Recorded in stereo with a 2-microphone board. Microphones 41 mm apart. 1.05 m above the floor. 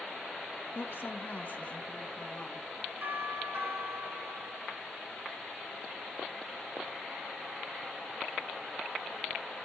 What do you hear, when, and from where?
0.8 s a woman speaking: 65° left (ahead or behind), 0.6 m; by 2.6 s 25° left (ahead or behind), 1.3 m
3.0 s a doorbell: 75° right (ahead or behind), 3 m